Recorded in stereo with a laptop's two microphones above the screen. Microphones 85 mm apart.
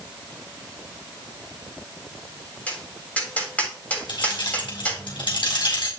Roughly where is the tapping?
Centre.